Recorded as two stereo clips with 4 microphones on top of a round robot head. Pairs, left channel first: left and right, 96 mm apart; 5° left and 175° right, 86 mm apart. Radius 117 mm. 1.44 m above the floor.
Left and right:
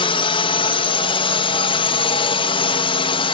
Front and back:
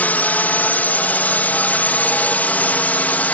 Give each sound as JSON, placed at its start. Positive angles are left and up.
{"t": 0.0, "sound": "a drone", "azimuth_deg": 75}